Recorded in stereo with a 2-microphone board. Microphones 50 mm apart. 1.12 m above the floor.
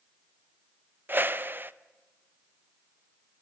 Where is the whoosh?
40° right (ahead or behind), 0.6 m.